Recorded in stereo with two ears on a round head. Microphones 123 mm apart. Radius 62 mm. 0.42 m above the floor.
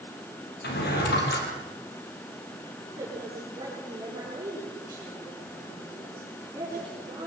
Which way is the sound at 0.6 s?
90° left.